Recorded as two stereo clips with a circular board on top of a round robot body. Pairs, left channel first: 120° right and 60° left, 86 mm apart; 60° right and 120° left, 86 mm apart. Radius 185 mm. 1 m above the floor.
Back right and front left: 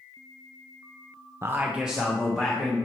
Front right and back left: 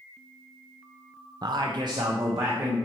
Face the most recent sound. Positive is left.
turn(degrees=160)